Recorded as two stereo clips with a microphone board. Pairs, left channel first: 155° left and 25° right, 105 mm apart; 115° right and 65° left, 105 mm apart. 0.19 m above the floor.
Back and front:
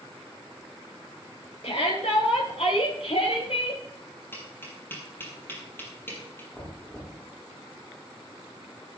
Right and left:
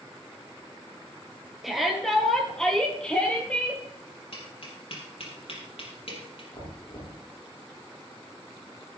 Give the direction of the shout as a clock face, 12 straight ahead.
7 o'clock.